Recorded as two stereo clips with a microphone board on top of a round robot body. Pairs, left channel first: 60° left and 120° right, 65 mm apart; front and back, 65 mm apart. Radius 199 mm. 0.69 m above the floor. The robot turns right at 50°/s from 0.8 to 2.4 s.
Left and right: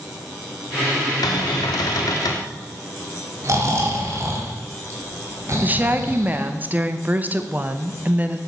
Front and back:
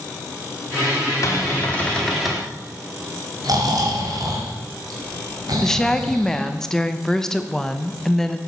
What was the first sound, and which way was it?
A cupboard door, 40° left.